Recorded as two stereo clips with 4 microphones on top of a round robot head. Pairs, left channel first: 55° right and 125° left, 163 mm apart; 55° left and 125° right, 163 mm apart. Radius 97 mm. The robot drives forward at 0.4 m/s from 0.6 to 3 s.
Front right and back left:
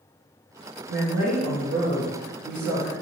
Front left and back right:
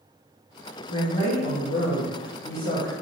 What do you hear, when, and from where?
0.9 s a woman speaking: 105° left, 1.5 m; by 2.9 s 130° left, 1.9 m